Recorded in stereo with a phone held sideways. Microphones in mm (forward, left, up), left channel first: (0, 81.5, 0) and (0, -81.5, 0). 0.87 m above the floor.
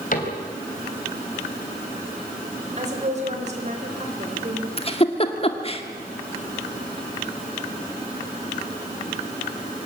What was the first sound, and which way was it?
A cupboard door, 55° left (ahead or behind).